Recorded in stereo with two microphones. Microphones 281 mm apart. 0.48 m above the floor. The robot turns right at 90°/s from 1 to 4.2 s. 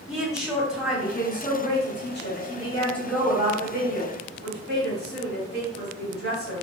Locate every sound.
0.1 s a woman speaking: 5° right, 1.4 m; by 6.6 s 75° right, 1.4 m